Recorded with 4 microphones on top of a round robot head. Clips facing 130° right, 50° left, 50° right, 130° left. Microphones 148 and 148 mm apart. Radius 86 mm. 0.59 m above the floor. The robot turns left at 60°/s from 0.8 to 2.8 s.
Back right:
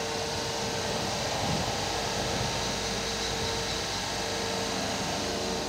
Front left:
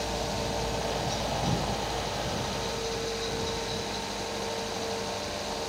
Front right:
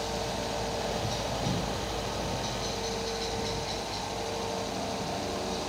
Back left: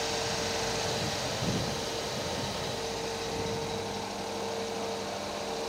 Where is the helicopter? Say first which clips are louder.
Front left 1 dB, even; 5° left; by 5.7 s 95° right.